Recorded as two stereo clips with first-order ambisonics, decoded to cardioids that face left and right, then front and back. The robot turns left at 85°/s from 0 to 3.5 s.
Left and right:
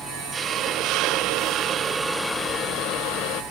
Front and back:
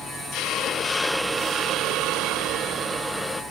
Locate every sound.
0.3 s a hiss: 20° right, 0.5 m; by 3.4 s 75° left, 0.5 m